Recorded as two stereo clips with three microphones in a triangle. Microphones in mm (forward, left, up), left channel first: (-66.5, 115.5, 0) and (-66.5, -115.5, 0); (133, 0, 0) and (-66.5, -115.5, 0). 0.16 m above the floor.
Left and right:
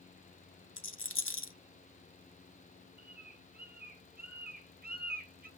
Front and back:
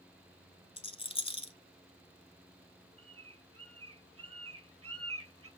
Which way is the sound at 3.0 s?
140° right.